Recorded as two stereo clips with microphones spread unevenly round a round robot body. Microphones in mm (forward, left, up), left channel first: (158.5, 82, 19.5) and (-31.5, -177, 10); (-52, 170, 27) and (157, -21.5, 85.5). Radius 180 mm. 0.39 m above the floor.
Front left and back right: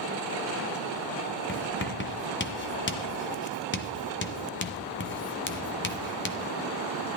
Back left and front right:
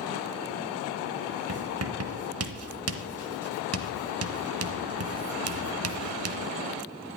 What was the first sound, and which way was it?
Writing, 5° right.